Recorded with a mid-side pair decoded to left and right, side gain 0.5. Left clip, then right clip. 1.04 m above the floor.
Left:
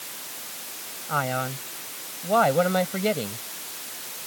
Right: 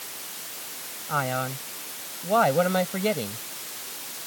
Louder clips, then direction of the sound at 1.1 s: Left 1 dB; 5° left.